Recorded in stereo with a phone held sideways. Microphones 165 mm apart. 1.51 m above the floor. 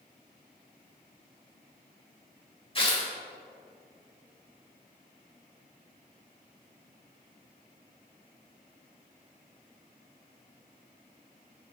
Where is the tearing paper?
35° left (ahead or behind), 1.4 m.